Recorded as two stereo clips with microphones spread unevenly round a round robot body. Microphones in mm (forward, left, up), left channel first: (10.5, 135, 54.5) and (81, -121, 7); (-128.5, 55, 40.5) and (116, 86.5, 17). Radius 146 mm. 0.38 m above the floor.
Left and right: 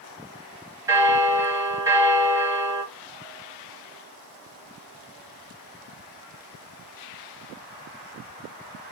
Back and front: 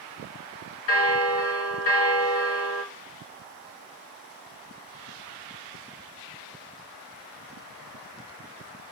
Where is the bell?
150° right, 1.1 m.